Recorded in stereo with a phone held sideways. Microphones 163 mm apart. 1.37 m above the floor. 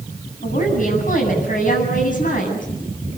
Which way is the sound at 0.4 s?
55° left (ahead or behind).